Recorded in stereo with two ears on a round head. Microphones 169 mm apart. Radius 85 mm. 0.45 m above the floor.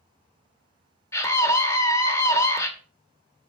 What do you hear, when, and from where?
1.1 s a scream: 15° left (ahead or behind), 1.8 m